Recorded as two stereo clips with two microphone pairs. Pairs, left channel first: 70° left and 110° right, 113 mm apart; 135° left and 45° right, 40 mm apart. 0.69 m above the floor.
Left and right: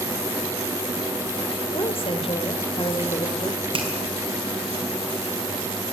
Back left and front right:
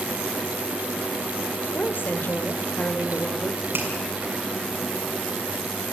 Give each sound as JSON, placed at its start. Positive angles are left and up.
{"t": 1.7, "sound": "a woman speaking", "azimuth_deg": 100, "distance_m": 2.5}
{"t": 3.7, "sound": "a finger snap", "azimuth_deg": -70, "distance_m": 5.5}